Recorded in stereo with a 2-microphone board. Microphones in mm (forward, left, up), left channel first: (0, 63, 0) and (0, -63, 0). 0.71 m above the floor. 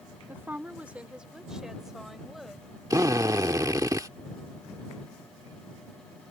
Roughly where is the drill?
Right.